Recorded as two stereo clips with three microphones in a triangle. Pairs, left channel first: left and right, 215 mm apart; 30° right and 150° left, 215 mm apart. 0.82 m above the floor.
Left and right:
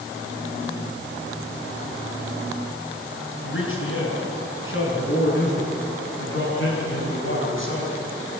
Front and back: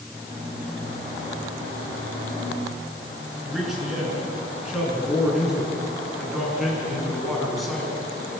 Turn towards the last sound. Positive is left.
turn(degrees=60)